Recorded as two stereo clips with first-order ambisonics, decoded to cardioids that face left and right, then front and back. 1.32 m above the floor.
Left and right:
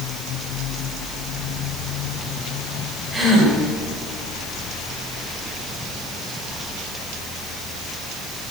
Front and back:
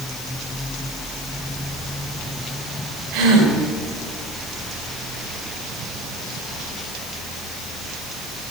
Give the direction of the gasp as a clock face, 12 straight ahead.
6 o'clock.